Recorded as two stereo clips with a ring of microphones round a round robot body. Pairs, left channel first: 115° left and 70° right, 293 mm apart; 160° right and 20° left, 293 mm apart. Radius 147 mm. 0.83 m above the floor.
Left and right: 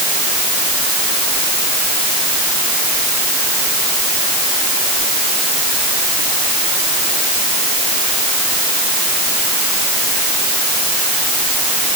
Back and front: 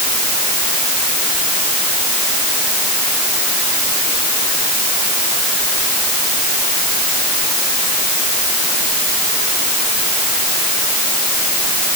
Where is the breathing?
No breathing in this recording.